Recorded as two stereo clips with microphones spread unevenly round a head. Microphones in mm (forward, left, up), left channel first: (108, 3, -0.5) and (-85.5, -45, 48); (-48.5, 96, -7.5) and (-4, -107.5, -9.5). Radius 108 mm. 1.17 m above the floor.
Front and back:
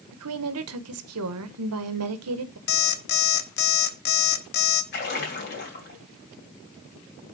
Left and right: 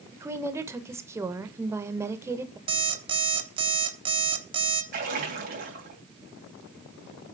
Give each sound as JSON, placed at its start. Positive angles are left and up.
{"t": 0.1, "sound": "a woman speaking", "azimuth_deg": -155, "distance_m": 0.8}
{"t": 2.7, "sound": "an alarm clock", "azimuth_deg": -20, "distance_m": 0.8}
{"t": 4.9, "sound": "a splash", "azimuth_deg": -25, "distance_m": 2.5}